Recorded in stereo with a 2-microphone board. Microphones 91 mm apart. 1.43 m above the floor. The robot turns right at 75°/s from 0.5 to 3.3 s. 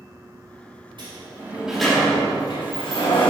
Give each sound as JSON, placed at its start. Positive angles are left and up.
{"t": 1.0, "sound": "a sliding door", "azimuth_deg": -60, "distance_m": 4.0}